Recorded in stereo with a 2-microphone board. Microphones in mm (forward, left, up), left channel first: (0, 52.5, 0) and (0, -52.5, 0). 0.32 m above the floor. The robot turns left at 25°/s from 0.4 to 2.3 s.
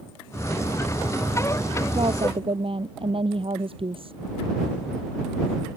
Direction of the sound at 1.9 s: 50° right (ahead or behind).